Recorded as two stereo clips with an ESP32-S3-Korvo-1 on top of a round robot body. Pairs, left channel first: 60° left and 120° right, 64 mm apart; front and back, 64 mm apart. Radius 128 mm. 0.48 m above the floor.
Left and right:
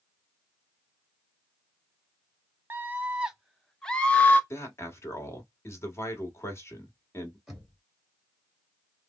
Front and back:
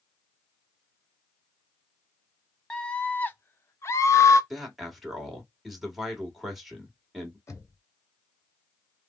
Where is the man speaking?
95° left, 1.5 m.